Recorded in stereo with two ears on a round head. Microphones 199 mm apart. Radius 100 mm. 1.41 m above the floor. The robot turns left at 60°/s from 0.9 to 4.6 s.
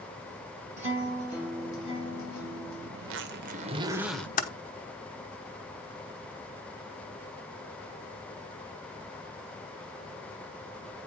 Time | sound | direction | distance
0.8 | a guitar | 145° right | 4.5 m
3.0 | a zipper | 110° right | 0.8 m
4.4 | typing on a keyboard | 35° left (ahead or behind) | 0.9 m